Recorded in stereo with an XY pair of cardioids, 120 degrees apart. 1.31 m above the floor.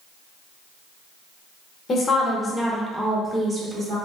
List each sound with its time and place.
1.9 s a woman speaking: 40° left, 0.7 m; by 4.0 s 40° right, 1.2 m